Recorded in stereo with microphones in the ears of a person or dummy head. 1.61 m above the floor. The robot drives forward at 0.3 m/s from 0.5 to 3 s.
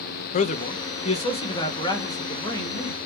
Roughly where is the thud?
No thud in this recording.